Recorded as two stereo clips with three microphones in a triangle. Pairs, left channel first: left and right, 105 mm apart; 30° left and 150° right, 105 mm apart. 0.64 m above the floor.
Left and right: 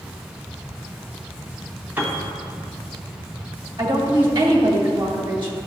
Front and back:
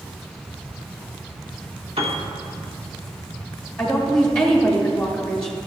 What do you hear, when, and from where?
2.0 s a piano: 160° right, 1.5 m
3.8 s a woman speaking: 55° right, 2 m